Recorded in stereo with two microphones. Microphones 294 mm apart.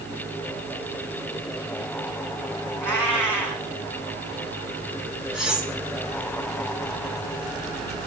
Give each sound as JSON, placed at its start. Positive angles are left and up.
{"t": 2.8, "sound": "a cat meowing", "side_deg": -85, "distance_m": 1.8}
{"t": 5.3, "sound": "cutlery clinking", "side_deg": 0, "distance_m": 1.7}